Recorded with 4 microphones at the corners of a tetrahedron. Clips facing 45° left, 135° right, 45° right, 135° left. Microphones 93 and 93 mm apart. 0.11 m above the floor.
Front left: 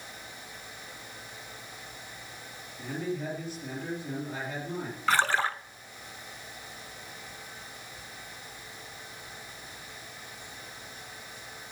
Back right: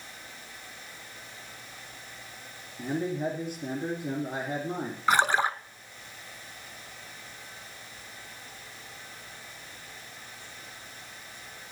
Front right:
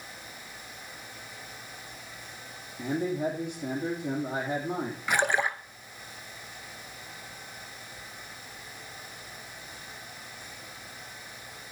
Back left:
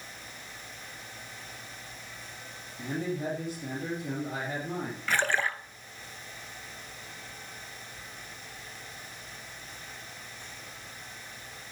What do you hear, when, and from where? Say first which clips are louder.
2.8 s a man speaking: back right 4 dB, front right 4 dB; 105° right, 2.5 m
5.1 s a splash: back right 2 dB, front right 2 dB; 90° right, 0.6 m